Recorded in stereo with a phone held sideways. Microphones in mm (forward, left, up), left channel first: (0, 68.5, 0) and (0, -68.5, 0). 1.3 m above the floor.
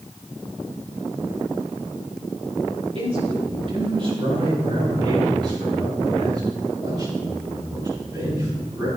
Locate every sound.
3.0 s a man speaking: 45° right (ahead or behind), 4 m; by 8.9 s 30° right (ahead or behind), 8 m